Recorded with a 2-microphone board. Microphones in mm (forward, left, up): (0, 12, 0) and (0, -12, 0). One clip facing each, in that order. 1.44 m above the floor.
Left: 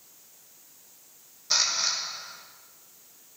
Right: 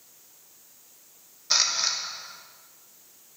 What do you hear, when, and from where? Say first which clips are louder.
1.5 s a camera shutter: right 1 dB; 20° right (ahead or behind), 1.0 m